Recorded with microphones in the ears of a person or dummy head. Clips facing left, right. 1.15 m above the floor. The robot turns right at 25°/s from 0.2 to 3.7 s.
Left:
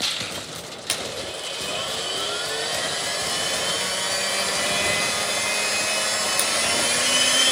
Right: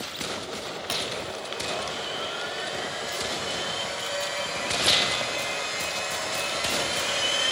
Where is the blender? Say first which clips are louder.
Left 4 dB; 35° left, 4 m; by 7.5 s 105° left, 4 m.